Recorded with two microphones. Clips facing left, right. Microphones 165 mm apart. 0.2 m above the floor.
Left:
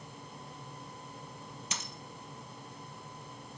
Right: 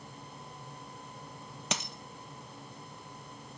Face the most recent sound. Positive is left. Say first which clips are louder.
# right 9 dB
turn(degrees=-85)